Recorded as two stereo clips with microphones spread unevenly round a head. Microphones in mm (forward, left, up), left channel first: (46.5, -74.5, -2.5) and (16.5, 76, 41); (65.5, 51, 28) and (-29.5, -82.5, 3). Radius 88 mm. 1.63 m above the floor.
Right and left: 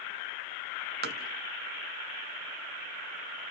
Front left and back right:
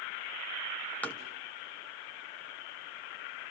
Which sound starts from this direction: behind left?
Tapping, at 1.0 s.